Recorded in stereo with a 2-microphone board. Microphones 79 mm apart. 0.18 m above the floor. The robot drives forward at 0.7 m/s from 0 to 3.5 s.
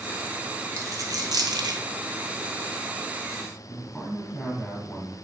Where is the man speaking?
5° left (ahead or behind), 1.6 m.